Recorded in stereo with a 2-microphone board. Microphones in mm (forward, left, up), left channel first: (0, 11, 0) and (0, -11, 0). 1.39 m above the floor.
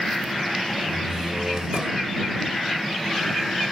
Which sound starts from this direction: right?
A door slam, at 0.9 s.